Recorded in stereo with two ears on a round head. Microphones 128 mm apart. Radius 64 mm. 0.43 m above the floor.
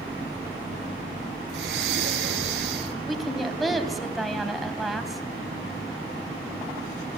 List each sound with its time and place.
1.5 s breathing: 85° right, 2 m
3.1 s a woman speaking: centre (ahead or behind), 3 m